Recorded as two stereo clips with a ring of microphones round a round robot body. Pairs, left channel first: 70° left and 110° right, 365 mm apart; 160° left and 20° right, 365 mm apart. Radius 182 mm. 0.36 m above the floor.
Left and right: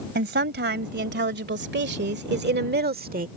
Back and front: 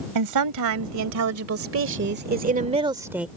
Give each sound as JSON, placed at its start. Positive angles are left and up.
{"t": 0.1, "sound": "a woman speaking", "azimuth_deg": -55}